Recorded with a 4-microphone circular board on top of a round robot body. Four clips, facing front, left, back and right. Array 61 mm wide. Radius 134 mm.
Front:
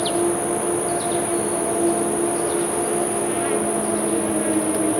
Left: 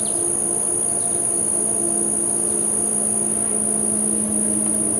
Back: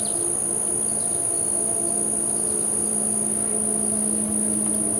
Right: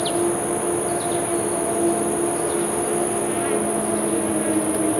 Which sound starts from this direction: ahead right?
An insect, at 0.0 s.